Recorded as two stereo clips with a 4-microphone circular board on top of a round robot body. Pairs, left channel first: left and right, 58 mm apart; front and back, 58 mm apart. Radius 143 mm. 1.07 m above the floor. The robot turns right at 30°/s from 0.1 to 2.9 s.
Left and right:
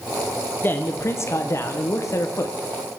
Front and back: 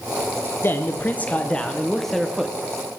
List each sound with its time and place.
0.6 s a man speaking: 45° left, 1.2 m; by 2.6 s 100° left, 1.2 m